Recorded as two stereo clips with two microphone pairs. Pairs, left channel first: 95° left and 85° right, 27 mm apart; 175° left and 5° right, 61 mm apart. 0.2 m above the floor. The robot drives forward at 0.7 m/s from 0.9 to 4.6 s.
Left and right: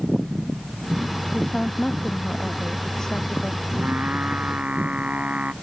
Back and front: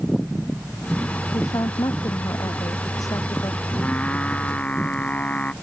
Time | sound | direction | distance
1.3 | a woman speaking | 160° left | ?
3.7 | singing | 120° right | ?